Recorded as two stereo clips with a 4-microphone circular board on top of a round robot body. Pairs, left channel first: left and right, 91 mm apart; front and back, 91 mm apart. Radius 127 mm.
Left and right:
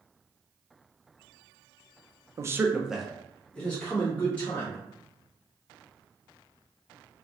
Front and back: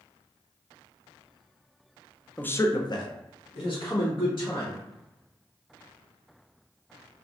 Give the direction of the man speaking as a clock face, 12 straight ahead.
2 o'clock.